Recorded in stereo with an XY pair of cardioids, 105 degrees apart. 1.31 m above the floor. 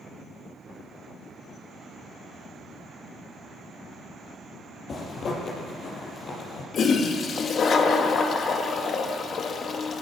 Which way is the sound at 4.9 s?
50° left.